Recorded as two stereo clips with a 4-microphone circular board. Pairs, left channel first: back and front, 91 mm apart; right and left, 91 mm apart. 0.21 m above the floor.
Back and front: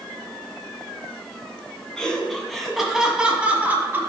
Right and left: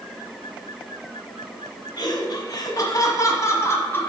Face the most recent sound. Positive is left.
turn(degrees=-45)